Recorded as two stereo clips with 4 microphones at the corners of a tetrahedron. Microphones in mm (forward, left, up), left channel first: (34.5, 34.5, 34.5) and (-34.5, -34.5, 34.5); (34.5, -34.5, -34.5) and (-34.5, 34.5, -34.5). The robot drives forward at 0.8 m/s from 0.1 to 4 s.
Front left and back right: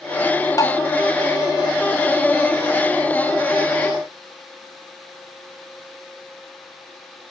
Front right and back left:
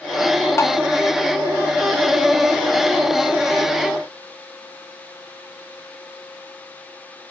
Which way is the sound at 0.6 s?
10° left.